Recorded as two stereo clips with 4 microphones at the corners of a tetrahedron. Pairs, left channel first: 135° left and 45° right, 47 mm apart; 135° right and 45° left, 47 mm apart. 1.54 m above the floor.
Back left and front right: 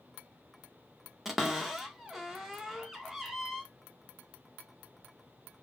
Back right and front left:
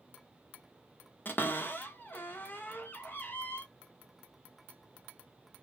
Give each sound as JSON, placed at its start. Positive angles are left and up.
{"t": 1.2, "sound": "a cupboard door", "azimuth_deg": -125, "distance_m": 0.9}